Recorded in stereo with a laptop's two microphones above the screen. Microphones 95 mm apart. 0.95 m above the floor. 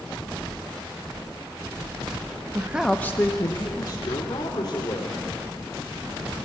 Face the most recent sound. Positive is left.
turn(degrees=45)  # may be behind; listen again after turning